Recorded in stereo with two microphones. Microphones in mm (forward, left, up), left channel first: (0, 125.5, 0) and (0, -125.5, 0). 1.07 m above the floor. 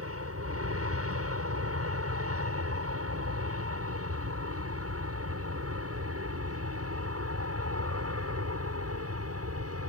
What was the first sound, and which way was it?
An aircraft, 65° right (ahead or behind).